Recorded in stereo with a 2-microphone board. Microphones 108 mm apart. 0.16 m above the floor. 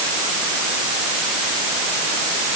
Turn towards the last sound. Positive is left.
No sound to turn to.